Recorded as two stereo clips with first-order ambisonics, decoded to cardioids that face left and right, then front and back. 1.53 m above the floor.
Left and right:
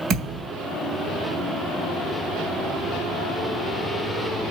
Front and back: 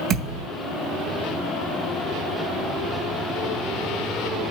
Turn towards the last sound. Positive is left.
turn(degrees=-135)